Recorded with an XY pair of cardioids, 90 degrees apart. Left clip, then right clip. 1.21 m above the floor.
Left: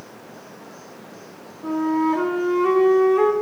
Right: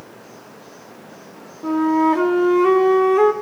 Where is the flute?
35° right, 3 m.